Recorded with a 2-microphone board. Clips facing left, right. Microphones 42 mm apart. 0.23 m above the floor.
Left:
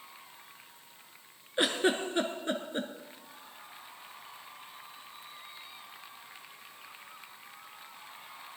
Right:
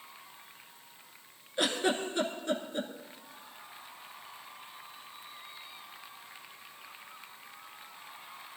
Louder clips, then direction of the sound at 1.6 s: Left 2 dB; 30° left (ahead or behind).